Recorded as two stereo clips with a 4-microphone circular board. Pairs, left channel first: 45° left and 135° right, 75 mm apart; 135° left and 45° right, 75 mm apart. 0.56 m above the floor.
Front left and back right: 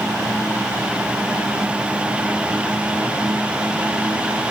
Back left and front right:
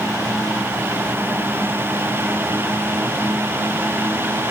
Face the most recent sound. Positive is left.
No sound to turn to.